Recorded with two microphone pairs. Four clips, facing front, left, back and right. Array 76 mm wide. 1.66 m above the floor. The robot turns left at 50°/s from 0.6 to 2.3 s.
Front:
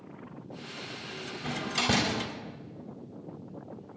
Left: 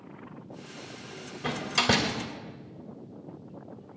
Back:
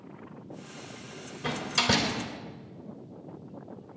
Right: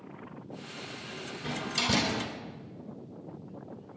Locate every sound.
1.4 s a door slam: 110° left, 3 m; by 2.1 s 75° left, 3 m